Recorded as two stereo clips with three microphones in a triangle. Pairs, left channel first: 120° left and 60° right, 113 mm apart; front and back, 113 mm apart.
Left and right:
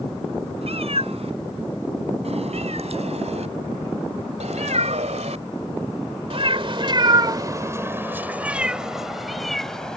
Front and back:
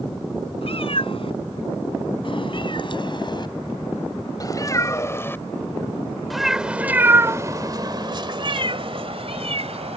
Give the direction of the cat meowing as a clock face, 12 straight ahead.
1 o'clock.